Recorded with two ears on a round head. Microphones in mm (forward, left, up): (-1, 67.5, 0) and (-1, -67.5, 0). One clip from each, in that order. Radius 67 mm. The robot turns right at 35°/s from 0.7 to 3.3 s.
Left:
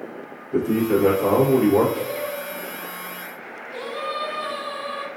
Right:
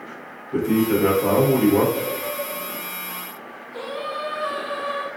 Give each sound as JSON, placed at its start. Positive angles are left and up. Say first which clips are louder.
{"t": 0.5, "sound": "a man speaking", "louder": "even", "side_deg": -20, "distance_m": 0.9}
{"t": 1.9, "sound": "singing", "louder": "right 1 dB", "azimuth_deg": 65, "distance_m": 1.1}